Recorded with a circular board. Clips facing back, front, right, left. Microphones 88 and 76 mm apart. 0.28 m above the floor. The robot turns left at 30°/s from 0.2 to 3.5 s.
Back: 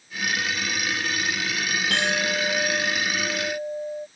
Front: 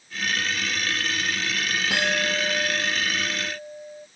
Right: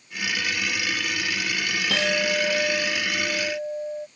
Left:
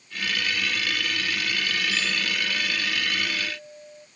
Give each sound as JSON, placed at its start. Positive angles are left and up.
{"t": 1.9, "sound": "a clink", "azimuth_deg": -80}